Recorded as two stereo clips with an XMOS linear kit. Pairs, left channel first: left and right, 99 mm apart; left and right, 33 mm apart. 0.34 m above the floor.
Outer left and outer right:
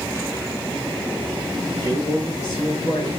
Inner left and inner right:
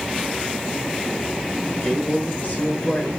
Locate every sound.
1.7 s a man speaking: 40° left (ahead or behind), 5.5 m